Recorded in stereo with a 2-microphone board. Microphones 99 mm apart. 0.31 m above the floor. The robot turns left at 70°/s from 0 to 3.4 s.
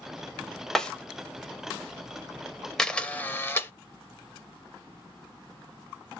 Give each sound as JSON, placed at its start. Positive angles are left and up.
{"t": 0.8, "sound": "a snare drum", "side_deg": 5, "distance_m": 0.6}
{"t": 2.8, "sound": "a camera shutter", "azimuth_deg": 170, "distance_m": 0.5}